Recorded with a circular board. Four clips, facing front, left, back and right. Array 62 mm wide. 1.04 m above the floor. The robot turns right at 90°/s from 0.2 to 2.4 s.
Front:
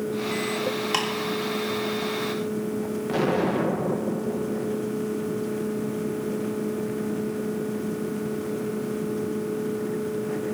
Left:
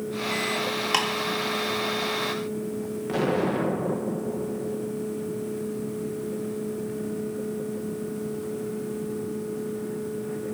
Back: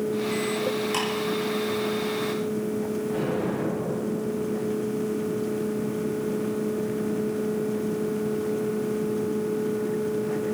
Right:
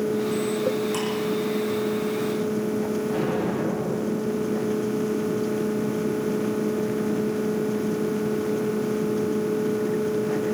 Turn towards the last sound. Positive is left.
turn(degrees=30)